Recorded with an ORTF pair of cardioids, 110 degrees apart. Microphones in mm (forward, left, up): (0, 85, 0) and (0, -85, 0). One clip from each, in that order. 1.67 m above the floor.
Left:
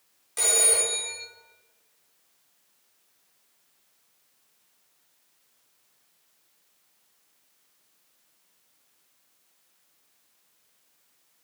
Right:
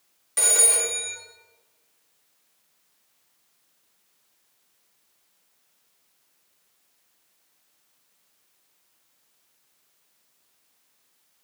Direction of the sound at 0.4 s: 25° right.